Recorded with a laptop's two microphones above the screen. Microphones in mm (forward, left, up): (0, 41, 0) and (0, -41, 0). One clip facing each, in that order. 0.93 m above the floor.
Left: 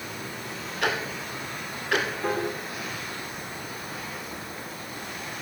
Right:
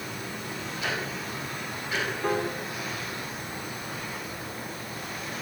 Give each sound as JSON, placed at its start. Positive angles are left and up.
{"t": 0.8, "sound": "ticking", "side_deg": 70, "distance_m": 2.5}
{"t": 2.2, "sound": "a piano", "side_deg": 5, "distance_m": 3.5}